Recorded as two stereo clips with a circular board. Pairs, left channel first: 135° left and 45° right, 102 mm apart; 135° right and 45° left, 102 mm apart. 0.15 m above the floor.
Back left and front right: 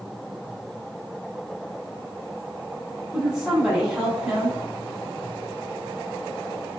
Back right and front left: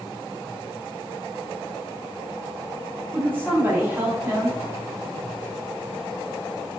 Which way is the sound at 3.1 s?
25° left.